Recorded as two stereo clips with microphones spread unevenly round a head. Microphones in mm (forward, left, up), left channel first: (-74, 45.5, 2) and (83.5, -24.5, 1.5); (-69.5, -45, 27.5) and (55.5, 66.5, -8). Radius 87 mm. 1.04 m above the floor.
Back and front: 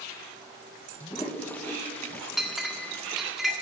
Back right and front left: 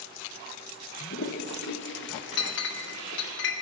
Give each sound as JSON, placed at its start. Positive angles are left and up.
{"t": 1.0, "sound": "a toilet flushing", "azimuth_deg": -125, "distance_m": 1.0}
{"t": 2.4, "sound": "a clink", "azimuth_deg": -110, "distance_m": 1.5}